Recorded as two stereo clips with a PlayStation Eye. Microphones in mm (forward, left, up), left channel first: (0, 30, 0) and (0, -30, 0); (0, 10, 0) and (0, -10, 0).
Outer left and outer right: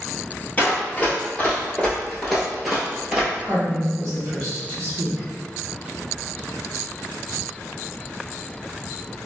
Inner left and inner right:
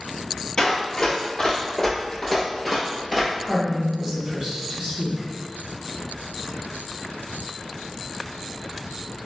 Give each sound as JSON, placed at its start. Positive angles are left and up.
{"t": 0.6, "sound": "running footsteps", "side_deg": 30, "distance_m": 1.2}
{"t": 3.4, "sound": "a woman speaking", "side_deg": -60, "distance_m": 1.4}